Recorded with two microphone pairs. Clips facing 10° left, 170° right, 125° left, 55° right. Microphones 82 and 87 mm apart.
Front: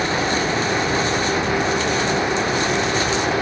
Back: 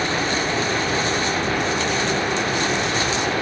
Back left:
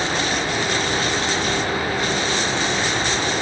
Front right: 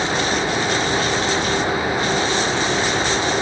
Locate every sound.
Only background noise.